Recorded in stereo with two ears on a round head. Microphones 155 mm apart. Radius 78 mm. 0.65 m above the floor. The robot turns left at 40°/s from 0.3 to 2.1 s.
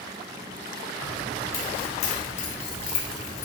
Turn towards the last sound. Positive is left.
turn(degrees=45)  # may be behind; listen again after turning